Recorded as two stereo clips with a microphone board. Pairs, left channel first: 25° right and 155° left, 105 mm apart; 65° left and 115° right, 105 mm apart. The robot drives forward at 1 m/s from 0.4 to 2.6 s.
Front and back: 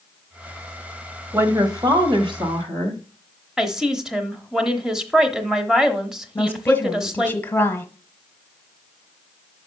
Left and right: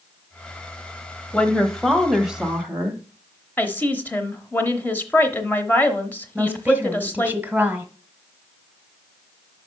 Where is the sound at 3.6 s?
85° left, 0.9 m.